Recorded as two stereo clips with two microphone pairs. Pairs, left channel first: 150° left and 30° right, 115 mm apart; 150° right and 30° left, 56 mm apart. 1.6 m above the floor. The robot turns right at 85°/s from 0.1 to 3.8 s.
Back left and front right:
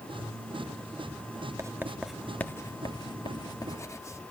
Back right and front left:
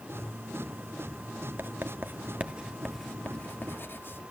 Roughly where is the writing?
Ahead.